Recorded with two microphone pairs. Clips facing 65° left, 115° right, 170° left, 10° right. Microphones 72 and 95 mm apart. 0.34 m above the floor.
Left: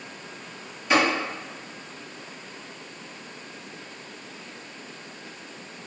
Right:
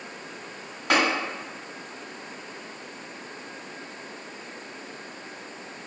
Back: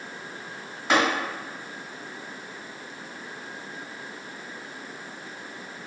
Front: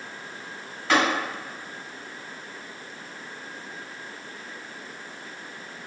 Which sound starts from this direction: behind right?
Tapping, at 0.9 s.